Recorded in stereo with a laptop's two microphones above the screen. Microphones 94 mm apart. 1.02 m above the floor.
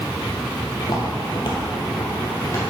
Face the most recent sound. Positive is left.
turn(degrees=30)  # may be behind; listen again after turning